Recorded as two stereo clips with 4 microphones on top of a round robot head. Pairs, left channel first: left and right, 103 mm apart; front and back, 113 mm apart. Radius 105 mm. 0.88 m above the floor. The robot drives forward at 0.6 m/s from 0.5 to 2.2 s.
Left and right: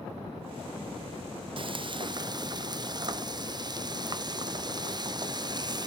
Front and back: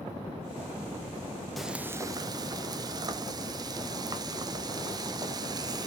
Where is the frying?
90° right, 0.6 m; by 5.9 s 130° right, 0.7 m.